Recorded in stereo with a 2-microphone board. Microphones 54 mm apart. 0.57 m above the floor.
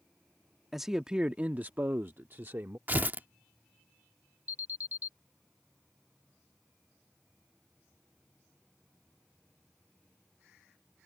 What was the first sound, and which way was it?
A man speaking, centre (ahead or behind).